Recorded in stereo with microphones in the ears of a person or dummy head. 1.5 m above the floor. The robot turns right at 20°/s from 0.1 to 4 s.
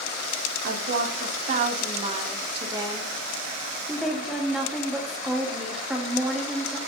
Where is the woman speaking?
70° right, 0.7 m; by 6.8 s 5° right, 0.7 m.